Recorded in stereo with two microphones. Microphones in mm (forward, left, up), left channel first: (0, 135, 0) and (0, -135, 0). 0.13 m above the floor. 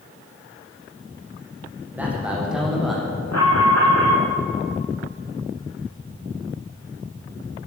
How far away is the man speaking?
About 7 m.